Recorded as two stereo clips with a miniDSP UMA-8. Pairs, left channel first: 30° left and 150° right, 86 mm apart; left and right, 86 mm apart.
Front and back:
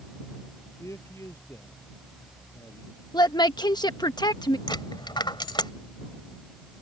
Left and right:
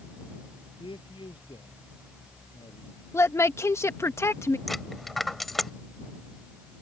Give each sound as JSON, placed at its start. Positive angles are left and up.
{"t": 0.8, "sound": "a man speaking", "azimuth_deg": 85}
{"t": 3.1, "sound": "a woman speaking", "azimuth_deg": 40}
{"t": 4.7, "sound": "a dropped coin", "azimuth_deg": 0}